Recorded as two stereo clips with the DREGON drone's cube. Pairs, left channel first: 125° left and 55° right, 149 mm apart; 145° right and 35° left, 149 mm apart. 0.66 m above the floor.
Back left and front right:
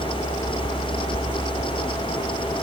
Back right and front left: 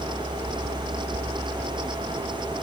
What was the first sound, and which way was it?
Only background noise.